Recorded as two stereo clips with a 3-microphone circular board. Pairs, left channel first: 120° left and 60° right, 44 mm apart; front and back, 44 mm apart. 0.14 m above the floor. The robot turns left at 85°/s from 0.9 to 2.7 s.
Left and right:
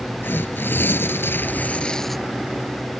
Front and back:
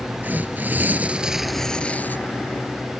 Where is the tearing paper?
140° left; by 2.2 s 30° left.